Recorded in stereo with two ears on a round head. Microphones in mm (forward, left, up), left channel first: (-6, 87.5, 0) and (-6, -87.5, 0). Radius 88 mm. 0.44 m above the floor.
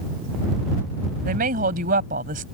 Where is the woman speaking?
45° right (ahead or behind).